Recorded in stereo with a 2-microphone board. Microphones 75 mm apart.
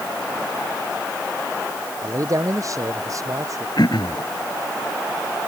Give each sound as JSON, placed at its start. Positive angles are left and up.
{"t": 2.0, "sound": "a man speaking", "side_deg": -45}
{"t": 3.8, "sound": "throat clearing", "side_deg": 65}